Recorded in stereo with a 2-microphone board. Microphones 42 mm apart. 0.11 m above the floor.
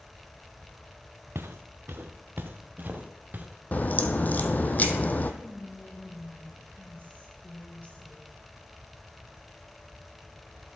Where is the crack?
40° left (ahead or behind), 0.7 m.